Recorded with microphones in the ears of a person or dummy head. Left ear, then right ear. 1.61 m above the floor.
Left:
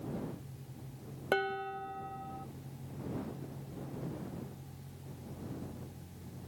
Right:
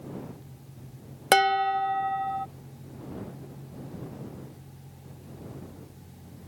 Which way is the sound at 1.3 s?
60° right (ahead or behind).